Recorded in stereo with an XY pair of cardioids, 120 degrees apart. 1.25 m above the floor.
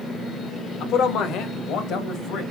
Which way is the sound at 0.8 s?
70° left.